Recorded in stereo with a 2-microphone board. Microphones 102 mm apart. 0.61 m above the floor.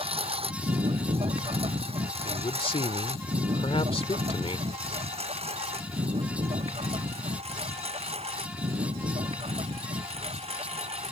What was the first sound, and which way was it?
A lawn mower, 70° right (ahead or behind).